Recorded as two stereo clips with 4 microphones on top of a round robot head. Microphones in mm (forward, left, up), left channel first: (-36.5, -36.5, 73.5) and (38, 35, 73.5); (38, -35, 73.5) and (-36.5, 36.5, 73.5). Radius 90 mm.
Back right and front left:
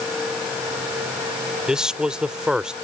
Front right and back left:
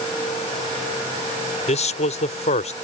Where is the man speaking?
40° right.